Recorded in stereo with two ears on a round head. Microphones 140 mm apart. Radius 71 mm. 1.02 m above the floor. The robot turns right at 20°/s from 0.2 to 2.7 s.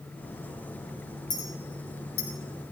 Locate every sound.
1.3 s a clink: 25° left (ahead or behind), 3.5 m; by 2.3 s 45° left (ahead or behind), 3.5 m